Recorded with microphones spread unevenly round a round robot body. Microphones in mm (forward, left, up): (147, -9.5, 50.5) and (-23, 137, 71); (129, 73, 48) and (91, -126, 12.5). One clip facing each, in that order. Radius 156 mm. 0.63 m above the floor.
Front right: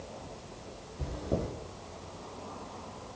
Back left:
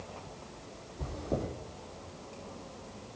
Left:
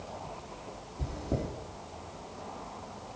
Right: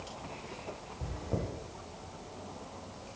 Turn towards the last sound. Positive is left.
turn(degrees=40)